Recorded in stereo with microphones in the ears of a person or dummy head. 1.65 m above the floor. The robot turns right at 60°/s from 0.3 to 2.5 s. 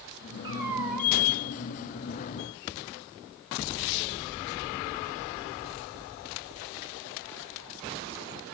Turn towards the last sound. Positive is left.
turn(degrees=85)